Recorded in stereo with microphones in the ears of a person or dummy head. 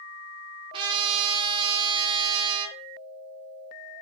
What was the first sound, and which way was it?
A trumpet, 30° right (ahead or behind).